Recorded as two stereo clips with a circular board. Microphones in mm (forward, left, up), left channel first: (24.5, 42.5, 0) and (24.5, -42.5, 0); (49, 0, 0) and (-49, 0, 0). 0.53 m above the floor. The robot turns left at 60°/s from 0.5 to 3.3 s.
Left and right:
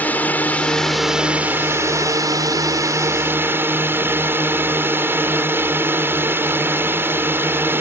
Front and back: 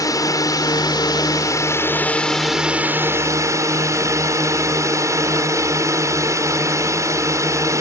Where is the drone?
25° left; by 7.8 s 140° right.